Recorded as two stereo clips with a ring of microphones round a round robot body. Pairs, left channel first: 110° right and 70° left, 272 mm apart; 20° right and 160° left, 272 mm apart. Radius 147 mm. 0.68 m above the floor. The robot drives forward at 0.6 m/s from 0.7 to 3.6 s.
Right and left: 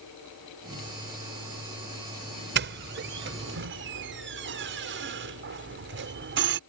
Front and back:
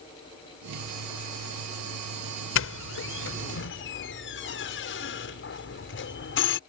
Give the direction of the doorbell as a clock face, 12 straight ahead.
11 o'clock.